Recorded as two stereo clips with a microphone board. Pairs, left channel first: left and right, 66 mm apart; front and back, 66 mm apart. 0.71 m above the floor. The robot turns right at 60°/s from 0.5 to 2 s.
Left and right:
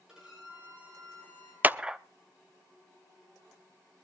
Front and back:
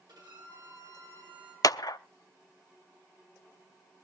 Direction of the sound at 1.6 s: 25° right.